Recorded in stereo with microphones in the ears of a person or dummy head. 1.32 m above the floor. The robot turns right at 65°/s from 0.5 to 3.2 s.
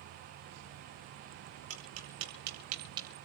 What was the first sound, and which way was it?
Tapping, 65° right (ahead or behind).